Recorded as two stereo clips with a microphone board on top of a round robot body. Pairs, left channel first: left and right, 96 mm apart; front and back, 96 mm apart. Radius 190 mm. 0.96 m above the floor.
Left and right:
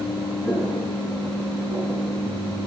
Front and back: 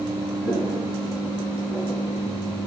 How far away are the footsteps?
About 1.2 m.